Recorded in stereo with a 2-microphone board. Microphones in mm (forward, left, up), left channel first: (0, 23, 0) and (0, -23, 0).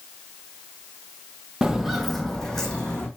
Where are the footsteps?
10° right (ahead or behind), 0.5 m; by 3.1 s 20° left (ahead or behind), 1.1 m.